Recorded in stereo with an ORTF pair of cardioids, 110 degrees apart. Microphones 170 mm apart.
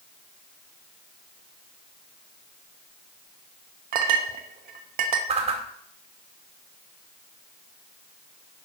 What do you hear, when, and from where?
3.9 s a clink: 60° right, 1.4 m
5.3 s a whoosh: 40° right, 2.5 m